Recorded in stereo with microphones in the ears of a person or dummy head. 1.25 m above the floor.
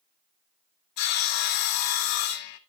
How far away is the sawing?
About 0.5 m.